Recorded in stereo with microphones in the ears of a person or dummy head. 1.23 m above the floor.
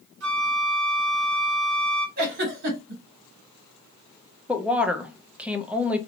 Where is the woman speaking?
Centre (ahead or behind), 0.6 m.